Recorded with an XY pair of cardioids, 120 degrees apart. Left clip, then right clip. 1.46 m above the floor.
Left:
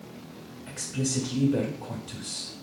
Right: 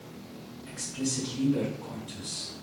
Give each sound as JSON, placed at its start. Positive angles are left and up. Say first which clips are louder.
{"t": 0.7, "sound": "a woman speaking", "louder": "left 2 dB", "azimuth_deg": 55, "distance_m": 1.0}